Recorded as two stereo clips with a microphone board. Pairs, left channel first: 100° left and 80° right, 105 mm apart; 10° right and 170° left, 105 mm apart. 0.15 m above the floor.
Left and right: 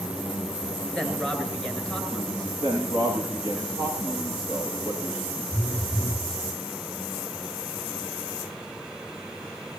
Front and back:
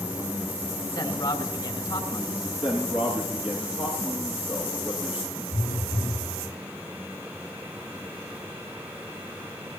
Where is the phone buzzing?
35° left, 4 m.